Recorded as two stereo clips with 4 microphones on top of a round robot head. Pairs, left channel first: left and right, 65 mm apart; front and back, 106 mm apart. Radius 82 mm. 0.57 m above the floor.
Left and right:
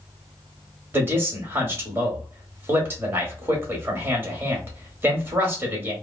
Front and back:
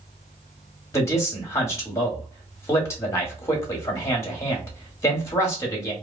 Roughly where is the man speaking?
Ahead right.